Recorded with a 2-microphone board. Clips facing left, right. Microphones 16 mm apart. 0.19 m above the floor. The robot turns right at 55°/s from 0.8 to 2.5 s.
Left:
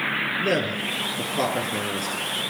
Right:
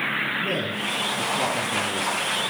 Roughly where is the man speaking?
Left.